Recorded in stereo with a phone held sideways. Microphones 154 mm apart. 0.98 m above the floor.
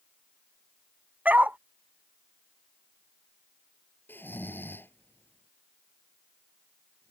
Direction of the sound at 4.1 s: 10° left (ahead or behind).